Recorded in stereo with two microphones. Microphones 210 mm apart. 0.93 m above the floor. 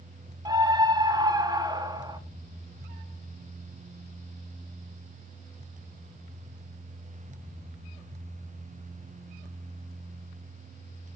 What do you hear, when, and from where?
0.5 s a scream: 20° right (ahead or behind), 1.3 m